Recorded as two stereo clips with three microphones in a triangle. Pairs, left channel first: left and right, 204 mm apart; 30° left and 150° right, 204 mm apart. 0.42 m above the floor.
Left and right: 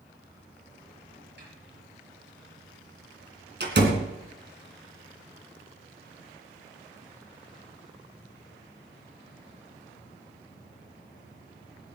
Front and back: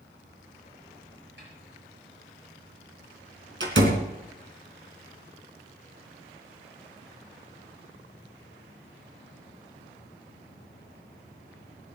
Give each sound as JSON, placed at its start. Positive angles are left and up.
{"t": 1.4, "sound": "a snare drum", "azimuth_deg": -120, "distance_m": 7.5}
{"t": 3.6, "sound": "a door slam", "azimuth_deg": -125, "distance_m": 2.5}